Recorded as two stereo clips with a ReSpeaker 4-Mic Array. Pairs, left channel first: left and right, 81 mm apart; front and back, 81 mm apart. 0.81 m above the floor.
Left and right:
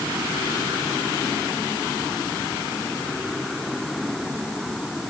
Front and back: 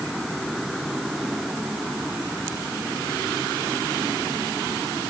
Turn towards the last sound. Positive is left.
No sound to turn to.